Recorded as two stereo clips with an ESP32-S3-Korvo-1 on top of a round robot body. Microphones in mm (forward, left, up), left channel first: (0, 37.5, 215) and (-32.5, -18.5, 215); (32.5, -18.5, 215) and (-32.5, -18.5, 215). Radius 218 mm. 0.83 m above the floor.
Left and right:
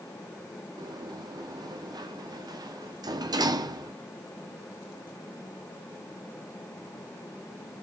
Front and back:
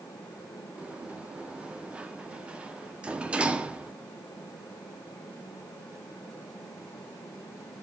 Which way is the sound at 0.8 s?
105° right.